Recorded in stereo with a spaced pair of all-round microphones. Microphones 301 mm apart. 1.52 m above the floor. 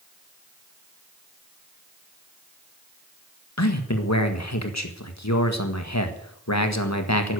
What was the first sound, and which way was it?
A man speaking, 60° left (ahead or behind).